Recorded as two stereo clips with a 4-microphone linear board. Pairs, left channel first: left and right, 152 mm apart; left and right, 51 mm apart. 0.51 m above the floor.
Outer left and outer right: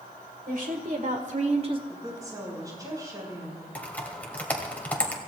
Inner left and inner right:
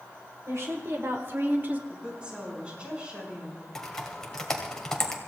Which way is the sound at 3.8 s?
10° left (ahead or behind).